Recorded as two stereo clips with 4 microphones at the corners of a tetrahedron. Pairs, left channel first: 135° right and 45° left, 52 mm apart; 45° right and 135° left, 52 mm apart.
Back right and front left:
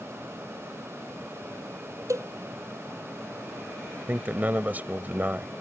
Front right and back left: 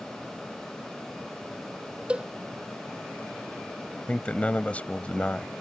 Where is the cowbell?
65° left.